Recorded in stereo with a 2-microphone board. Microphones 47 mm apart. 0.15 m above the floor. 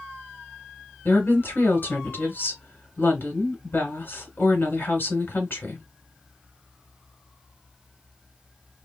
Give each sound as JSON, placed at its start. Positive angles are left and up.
{"t": 1.1, "sound": "a woman speaking", "side_deg": 40, "distance_m": 1.8}